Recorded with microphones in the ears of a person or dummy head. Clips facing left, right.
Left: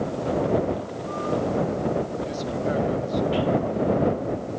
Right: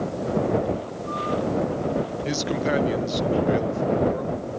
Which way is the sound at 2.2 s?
75° right (ahead or behind).